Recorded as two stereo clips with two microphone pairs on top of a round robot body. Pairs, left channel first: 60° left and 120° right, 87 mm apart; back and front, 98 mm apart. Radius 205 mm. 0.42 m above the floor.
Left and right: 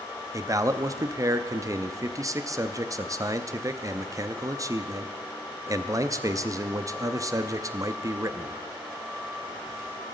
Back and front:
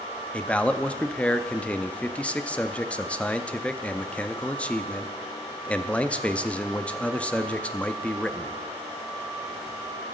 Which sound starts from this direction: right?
A man speaking, at 0.3 s.